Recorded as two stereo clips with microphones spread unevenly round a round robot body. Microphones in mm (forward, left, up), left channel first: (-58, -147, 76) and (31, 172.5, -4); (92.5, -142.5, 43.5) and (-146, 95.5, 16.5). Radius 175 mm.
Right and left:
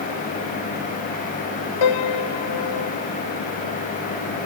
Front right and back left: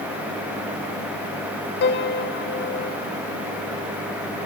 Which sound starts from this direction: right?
A piano, at 1.8 s.